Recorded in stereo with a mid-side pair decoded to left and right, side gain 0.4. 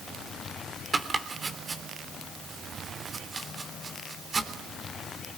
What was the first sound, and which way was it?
Chopping, 40° right.